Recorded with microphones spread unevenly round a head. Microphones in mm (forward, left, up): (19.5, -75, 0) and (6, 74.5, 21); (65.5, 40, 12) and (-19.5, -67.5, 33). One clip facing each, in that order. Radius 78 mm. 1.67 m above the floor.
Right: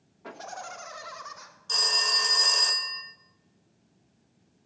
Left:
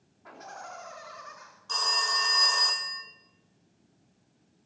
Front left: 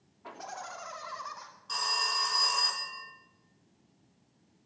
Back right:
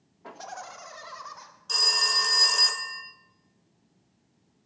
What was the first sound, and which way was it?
Laughter, 90° right.